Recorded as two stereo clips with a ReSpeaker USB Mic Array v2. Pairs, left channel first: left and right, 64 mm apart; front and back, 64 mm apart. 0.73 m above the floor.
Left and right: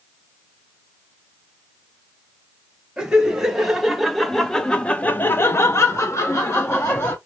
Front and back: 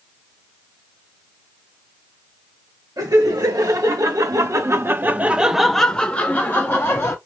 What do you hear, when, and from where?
3.0 s laughter: 165° right, 1.3 m; by 7.2 s 45° left, 1.1 m